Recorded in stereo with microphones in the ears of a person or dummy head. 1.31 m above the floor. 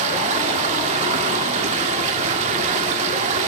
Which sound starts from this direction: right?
Running water, at 0.0 s.